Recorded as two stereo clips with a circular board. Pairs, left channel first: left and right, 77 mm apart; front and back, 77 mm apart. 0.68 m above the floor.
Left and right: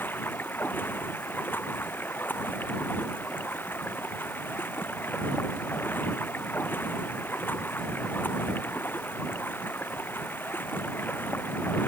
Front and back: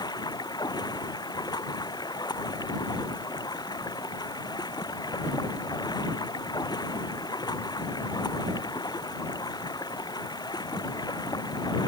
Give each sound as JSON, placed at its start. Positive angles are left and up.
{"t": 0.0, "sound": "running water", "azimuth_deg": 25}